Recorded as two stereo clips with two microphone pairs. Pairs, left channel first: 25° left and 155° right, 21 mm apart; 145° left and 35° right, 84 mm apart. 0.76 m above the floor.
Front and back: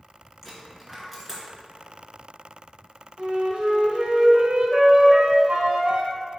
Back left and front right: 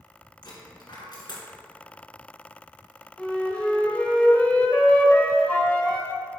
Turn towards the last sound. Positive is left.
turn(degrees=-145)